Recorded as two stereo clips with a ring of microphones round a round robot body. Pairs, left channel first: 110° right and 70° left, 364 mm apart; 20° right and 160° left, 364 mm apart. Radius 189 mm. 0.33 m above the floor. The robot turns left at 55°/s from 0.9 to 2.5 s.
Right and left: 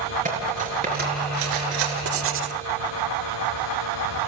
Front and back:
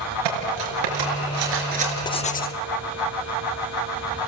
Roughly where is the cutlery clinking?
Behind left.